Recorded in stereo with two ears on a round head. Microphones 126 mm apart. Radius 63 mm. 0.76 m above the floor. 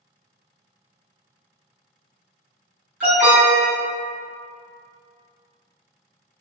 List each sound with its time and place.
3.0 s an alarm: 10° right (ahead or behind), 1.3 m